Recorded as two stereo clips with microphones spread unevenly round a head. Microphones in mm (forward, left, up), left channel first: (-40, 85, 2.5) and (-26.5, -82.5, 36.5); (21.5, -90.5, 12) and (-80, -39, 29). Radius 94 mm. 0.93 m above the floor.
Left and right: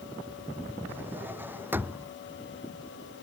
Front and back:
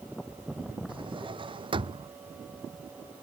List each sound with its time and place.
0.9 s a drawer: 165° right